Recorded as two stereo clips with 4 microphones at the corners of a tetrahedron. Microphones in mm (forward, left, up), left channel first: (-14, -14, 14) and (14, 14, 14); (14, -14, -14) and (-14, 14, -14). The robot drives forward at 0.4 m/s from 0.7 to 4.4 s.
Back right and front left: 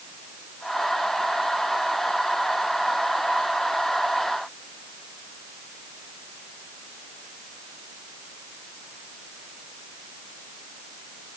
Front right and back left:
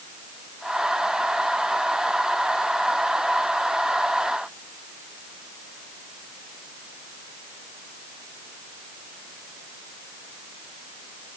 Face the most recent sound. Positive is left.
No sound to turn to.